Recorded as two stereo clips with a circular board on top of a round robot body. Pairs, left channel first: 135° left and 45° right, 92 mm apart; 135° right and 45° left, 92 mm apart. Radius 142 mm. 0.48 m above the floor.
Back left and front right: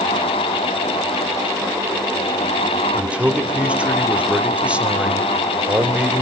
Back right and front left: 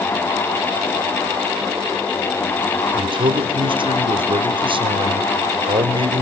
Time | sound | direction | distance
2.9 | a man speaking | 30° left | 2 m